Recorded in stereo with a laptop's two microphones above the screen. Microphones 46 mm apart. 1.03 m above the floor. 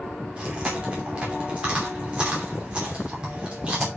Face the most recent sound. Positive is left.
turn(degrees=-25)  # may be behind; listen again after turning